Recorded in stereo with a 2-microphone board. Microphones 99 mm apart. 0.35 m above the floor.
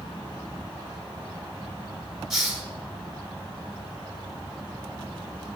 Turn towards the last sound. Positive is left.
turn(degrees=0)  # may be behind; listen again after turning